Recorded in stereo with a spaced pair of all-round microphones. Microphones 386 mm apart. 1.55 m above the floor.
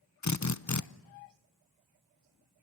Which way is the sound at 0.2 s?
45° left (ahead or behind).